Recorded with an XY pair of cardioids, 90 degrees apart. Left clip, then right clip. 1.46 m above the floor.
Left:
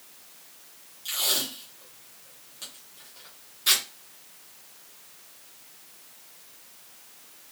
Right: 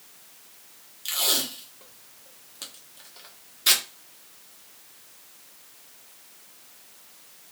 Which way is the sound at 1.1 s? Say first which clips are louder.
Right 2 dB; 50° right.